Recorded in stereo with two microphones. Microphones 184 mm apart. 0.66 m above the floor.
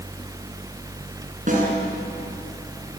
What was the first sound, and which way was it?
A snare drum, 45° right (ahead or behind).